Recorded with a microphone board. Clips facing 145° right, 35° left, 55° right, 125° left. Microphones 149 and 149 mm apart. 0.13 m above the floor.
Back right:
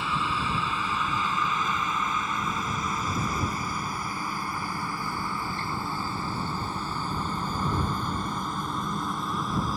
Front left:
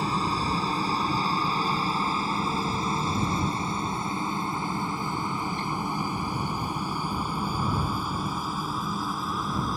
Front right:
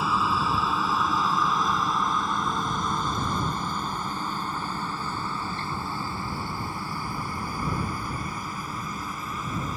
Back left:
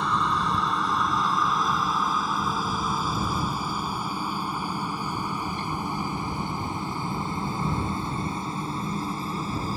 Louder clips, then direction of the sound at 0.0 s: Front left 2 dB, even; 25° left.